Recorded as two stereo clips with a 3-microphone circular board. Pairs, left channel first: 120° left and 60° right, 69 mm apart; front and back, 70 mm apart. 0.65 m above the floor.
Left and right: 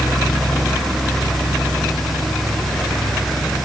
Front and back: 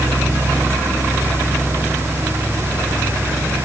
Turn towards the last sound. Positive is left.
No sound to turn to.